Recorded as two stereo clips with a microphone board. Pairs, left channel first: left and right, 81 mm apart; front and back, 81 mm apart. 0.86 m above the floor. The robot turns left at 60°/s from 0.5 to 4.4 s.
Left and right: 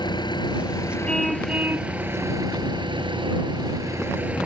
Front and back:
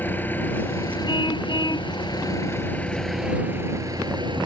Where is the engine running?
65° left; by 4.5 s 170° right.